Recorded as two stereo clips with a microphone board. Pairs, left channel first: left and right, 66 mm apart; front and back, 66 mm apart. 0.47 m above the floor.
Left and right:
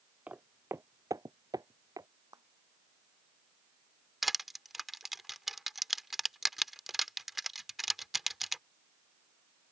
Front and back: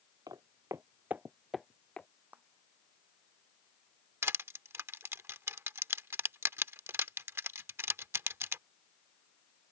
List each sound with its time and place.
0.3 s footsteps: 155° right; by 2.1 s 70° right
2.3 s a clap: 115° right
4.2 s crushing: 175° right